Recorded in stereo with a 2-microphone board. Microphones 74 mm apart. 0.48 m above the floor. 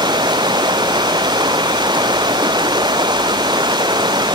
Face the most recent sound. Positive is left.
turn(degrees=-80)